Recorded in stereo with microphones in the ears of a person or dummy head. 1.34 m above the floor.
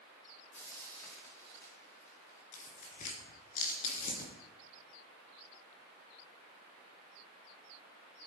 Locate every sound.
0.5 s frying: 10° left (ahead or behind), 2.5 m
2.5 s tearing paper: 50° left (ahead or behind), 3.5 m